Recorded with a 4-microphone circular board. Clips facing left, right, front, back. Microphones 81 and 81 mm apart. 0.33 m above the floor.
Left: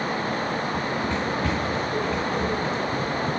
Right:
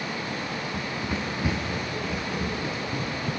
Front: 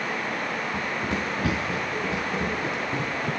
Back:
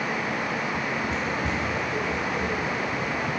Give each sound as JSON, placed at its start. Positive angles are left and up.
{"t": 0.7, "sound": "running footsteps", "azimuth_deg": -10, "distance_m": 1.7}